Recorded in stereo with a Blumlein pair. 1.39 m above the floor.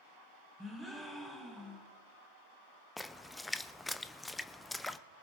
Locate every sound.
0.6 s a gasp: straight ahead, 3 m
3.0 s a splash: 5° left, 0.5 m